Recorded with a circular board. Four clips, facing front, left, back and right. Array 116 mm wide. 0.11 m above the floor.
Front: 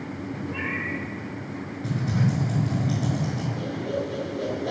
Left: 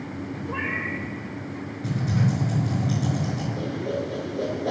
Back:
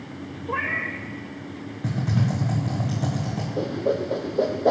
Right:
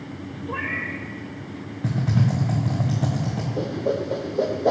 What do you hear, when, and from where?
0.5 s a cat meowing: 170° right, 1.4 m
1.8 s typing on a keyboard: 120° right, 3.5 m
3.6 s a whoosh: 145° right, 1.7 m